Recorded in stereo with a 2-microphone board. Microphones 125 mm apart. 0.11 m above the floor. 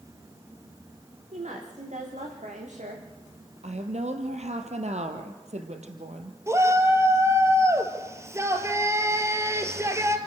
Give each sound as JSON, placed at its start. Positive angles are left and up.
{"t": 1.3, "sound": "a woman speaking", "side_deg": -75, "distance_m": 8.5}
{"t": 3.6, "sound": "a woman speaking", "side_deg": -65, "distance_m": 2.5}
{"t": 6.5, "sound": "a shout", "side_deg": -20, "distance_m": 2.5}